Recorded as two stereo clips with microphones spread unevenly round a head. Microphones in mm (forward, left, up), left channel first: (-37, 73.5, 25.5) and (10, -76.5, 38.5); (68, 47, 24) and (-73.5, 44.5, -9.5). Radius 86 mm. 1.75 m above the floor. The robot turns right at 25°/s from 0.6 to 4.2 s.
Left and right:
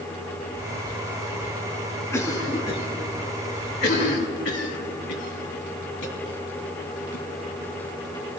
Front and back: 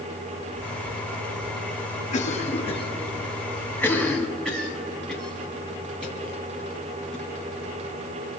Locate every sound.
2.1 s a cough: 35° left, 2.5 m; by 7.2 s 85° left, 2.5 m